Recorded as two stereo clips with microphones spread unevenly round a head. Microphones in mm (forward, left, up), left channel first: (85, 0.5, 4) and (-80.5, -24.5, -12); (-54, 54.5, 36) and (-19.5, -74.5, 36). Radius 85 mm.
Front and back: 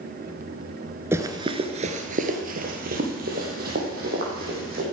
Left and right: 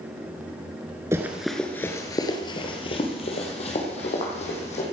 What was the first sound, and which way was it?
Running footsteps, 105° right.